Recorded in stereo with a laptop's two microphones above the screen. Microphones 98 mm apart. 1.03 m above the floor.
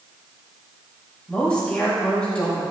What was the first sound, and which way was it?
A woman speaking, 10° left (ahead or behind).